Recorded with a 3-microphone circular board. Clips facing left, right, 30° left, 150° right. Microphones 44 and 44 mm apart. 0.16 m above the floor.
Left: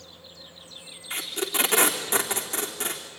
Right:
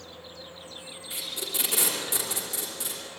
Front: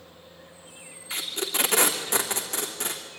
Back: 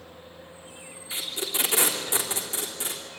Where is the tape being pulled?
65° left, 3 m.